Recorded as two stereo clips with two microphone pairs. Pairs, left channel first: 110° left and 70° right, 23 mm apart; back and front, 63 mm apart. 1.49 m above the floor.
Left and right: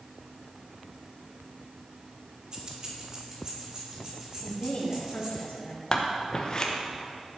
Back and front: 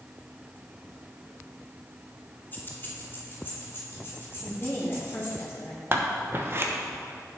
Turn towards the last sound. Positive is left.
turn(degrees=50)